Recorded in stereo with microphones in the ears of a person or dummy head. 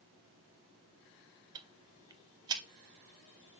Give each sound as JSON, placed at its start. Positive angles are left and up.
{"t": 1.6, "sound": "ticking", "side_deg": -20, "distance_m": 0.6}